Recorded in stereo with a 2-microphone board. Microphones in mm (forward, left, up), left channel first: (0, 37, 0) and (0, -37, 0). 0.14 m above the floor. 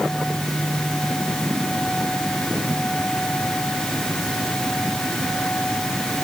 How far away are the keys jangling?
No keys jangling in this recording.